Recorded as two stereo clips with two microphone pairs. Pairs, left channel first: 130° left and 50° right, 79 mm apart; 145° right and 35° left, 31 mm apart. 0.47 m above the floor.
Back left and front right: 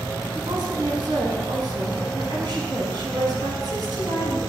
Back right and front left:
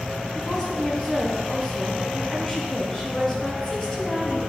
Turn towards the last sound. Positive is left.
turn(degrees=-80)